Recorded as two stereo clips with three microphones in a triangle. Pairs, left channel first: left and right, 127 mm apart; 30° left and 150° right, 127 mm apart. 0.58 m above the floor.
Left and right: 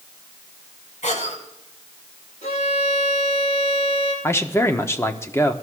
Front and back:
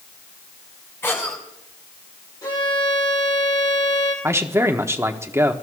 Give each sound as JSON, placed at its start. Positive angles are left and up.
{"t": 1.0, "sound": "a cough", "azimuth_deg": 100, "distance_m": 5.5}
{"t": 2.4, "sound": "a violin", "azimuth_deg": 85, "distance_m": 6.5}
{"t": 4.2, "sound": "a man speaking", "azimuth_deg": 150, "distance_m": 1.0}